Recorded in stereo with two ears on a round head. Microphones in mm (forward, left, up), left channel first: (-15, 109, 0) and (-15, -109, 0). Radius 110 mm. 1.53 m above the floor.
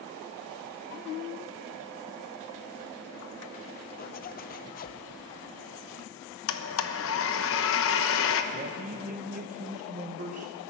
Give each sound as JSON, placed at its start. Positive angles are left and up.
{"t": 4.0, "sound": "a zipper", "side_deg": 40, "distance_m": 0.6}
{"t": 6.5, "sound": "a blender", "side_deg": 60, "distance_m": 1.0}
{"t": 8.5, "sound": "a man speaking", "side_deg": -35, "distance_m": 1.0}